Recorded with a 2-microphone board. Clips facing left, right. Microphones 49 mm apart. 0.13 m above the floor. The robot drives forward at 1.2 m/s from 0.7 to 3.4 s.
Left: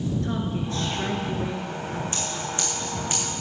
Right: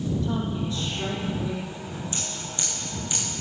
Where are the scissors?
40° left (ahead or behind), 5.5 m; by 3.2 s 35° left (ahead or behind), 6.5 m.